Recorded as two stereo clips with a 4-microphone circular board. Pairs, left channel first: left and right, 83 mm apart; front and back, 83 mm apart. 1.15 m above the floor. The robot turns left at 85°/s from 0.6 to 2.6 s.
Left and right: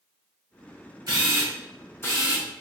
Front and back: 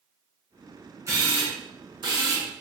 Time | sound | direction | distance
1.1 | a camera shutter | 125° right | 0.8 m